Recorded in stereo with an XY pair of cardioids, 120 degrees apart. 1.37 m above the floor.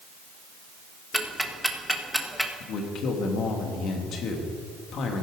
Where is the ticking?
Straight ahead, 1.4 m.